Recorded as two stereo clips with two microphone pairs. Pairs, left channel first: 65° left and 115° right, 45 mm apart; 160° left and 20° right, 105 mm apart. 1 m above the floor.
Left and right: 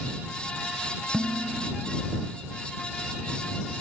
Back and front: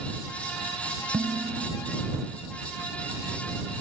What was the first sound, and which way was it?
Dishes clattering, 55° right.